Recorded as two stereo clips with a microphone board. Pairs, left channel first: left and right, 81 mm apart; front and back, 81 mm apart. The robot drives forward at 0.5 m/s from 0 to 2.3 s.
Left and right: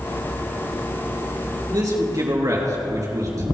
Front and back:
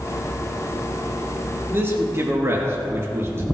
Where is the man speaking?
125° right, 3.5 m; by 3.4 s 130° right, 3.5 m.